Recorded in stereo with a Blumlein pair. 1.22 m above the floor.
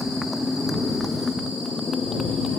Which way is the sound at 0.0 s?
5° left.